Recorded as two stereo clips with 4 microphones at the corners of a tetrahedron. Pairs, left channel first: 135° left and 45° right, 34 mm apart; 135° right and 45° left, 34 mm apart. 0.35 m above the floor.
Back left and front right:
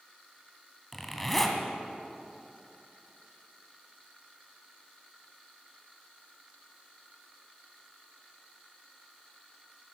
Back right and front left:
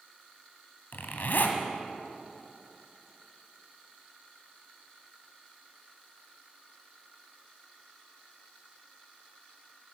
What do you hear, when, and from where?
0.9 s a zipper: 145° right, 1.6 m